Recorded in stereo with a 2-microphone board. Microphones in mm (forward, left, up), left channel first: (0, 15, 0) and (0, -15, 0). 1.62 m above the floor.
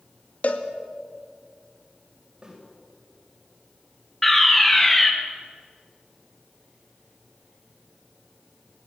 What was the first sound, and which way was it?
A cowbell, 50° left (ahead or behind).